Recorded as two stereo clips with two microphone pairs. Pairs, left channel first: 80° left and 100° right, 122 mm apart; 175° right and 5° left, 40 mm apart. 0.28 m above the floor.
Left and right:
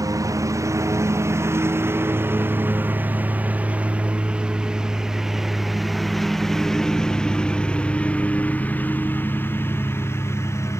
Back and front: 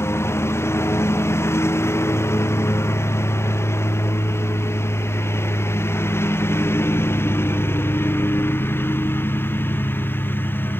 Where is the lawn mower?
165° right; by 10.8 s 150° left.